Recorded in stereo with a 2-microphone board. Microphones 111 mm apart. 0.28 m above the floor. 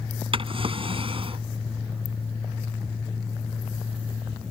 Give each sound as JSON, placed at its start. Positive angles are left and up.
{"t": 0.3, "sound": "a drawer", "side_deg": -60}